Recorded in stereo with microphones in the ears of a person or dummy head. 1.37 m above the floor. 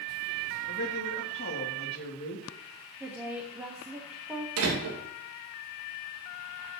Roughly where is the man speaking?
Left.